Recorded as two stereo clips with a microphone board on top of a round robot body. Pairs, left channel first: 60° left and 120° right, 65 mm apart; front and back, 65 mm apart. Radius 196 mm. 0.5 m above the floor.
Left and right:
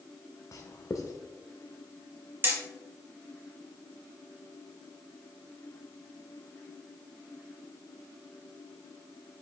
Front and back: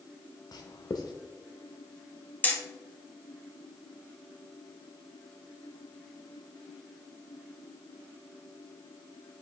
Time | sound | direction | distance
0.5 | writing | 15° left | 0.6 m
2.4 | hammering | 65° right | 1.7 m